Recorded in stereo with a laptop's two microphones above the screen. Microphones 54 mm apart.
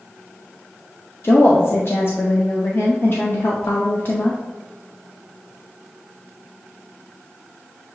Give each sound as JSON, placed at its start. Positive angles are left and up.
{"t": 1.2, "sound": "a woman speaking", "side_deg": 50, "distance_m": 0.6}